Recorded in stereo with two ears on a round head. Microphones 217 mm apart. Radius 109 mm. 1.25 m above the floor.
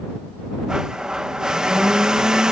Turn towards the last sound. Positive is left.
turn(degrees=-5)  # may be behind; listen again after turning